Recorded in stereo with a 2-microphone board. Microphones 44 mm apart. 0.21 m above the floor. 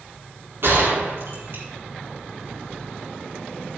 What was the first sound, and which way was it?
A gunshot, 60° right (ahead or behind).